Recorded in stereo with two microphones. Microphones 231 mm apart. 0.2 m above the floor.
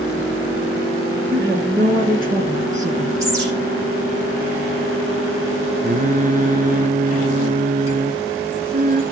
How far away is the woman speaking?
About 3 m.